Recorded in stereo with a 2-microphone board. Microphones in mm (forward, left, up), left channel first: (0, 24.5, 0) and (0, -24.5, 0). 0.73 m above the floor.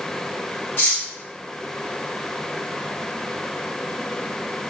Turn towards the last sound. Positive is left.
turn(degrees=45)  # may be behind; listen again after turning